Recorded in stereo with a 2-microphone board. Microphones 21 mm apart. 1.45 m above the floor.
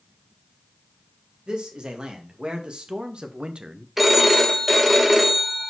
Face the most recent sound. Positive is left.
turn(degrees=-10)  # may be behind; listen again after turning